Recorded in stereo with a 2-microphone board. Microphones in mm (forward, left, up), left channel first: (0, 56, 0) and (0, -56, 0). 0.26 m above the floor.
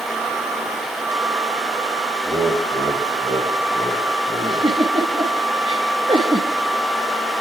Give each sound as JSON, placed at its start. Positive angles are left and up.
{"t": 2.2, "sound": "laughter", "side_deg": -60, "distance_m": 4.5}
{"t": 4.4, "sound": "a giggle", "side_deg": -45, "distance_m": 7.0}